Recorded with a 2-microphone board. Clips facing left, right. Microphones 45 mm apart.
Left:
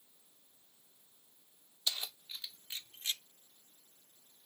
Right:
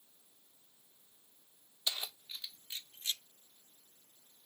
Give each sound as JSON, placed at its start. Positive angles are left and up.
{"t": 1.9, "sound": "keys jangling", "side_deg": -15}